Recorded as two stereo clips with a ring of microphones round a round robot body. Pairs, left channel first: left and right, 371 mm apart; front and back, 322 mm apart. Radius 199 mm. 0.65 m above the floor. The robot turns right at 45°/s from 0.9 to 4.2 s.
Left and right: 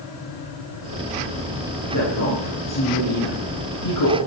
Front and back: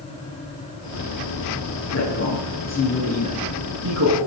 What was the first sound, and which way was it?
A woman speaking, 40° left.